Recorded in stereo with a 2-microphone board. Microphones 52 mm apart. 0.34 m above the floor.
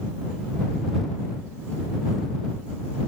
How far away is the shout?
No shout in this recording.